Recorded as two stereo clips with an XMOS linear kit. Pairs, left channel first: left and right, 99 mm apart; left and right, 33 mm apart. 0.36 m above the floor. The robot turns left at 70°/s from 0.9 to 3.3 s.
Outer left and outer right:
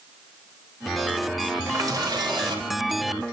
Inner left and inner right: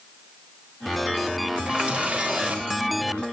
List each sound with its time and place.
1.7 s a running tap: 45° right, 1.0 m; by 2.6 s 115° right, 1.0 m